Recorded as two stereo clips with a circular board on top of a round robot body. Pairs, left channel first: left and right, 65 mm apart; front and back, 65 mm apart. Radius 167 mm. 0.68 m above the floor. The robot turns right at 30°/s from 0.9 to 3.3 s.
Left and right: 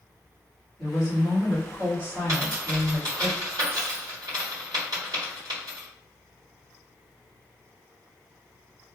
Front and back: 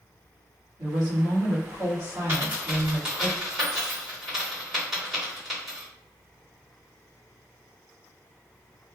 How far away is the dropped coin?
About 1.8 m.